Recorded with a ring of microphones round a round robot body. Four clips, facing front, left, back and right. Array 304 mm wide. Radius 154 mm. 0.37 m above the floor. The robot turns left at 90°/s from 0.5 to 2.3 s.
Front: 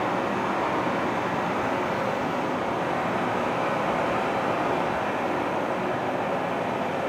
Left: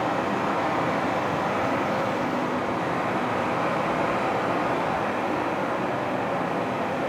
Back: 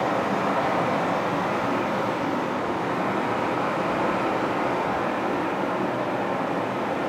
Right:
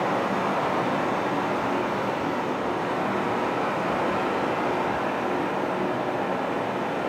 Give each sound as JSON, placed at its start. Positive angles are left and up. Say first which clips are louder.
{"t": 0.0, "sound": "running water", "louder": "even, back 2 dB", "azimuth_deg": -165, "distance_m": 1.7}